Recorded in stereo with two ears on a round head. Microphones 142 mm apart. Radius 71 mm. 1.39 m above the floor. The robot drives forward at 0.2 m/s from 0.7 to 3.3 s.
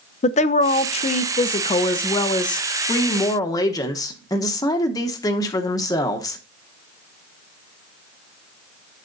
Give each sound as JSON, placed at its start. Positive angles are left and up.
{"t": 0.2, "sound": "a woman speaking", "side_deg": 45, "distance_m": 0.5}